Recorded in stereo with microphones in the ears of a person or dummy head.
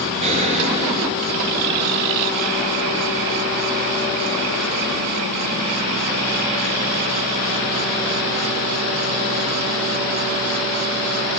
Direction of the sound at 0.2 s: 30° right (ahead or behind).